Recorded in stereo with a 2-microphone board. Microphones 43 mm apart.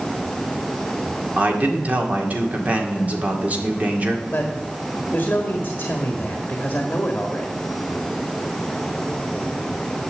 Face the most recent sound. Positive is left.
turn(degrees=40)  # may be behind; listen again after turning